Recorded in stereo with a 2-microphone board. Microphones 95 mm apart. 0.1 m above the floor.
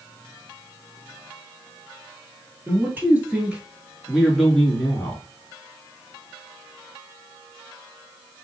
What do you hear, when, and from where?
2.7 s a man speaking: 20° right (ahead or behind), 1.6 m; by 5.2 s 20° left (ahead or behind), 1.2 m